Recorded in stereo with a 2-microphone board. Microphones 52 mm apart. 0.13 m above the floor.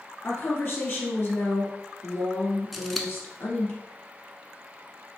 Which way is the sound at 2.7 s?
Centre (ahead or behind).